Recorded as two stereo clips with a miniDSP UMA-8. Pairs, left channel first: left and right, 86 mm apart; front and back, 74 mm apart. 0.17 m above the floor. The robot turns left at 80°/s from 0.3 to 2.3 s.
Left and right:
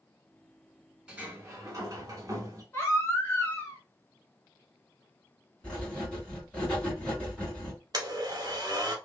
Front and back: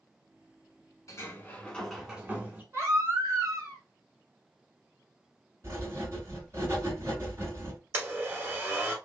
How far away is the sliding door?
About 0.8 m.